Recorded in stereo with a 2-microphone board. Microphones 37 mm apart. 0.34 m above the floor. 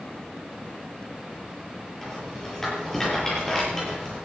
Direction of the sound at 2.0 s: 10° left (ahead or behind).